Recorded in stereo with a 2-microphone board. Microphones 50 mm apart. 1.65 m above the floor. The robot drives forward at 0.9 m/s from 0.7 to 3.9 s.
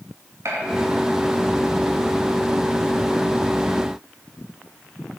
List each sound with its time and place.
0.5 s a gunshot: 70° right (ahead or behind), 3 m